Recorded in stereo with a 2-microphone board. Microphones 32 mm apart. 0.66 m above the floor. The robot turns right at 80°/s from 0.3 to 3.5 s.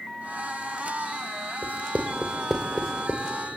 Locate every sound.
1.6 s writing: 65° right (ahead or behind), 2 m; by 3.3 s 50° left (ahead or behind), 2 m